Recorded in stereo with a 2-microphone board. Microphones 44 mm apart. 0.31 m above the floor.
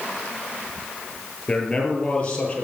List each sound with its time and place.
1.5 s a man speaking: 15° left (ahead or behind), 5.5 m; by 2.6 s 25° left (ahead or behind), 6.5 m